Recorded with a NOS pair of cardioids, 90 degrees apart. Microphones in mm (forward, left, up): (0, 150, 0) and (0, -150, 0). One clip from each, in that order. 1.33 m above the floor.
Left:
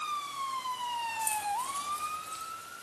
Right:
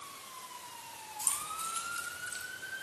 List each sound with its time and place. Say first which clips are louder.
1.2 s keys jangling: left 1 dB; 25° right, 4.5 m; by 2.5 s 15° right, 4.5 m